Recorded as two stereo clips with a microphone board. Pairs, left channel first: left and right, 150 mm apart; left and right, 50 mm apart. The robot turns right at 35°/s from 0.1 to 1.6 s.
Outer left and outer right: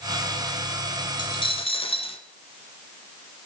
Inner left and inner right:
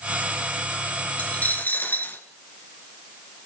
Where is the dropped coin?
30° left (ahead or behind), 0.9 m; by 2.2 s 40° left (ahead or behind), 0.9 m.